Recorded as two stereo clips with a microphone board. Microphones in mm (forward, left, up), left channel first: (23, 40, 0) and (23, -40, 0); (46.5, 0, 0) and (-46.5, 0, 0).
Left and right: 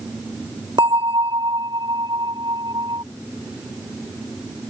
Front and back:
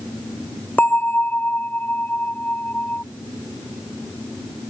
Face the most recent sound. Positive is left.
turn(degrees=-70)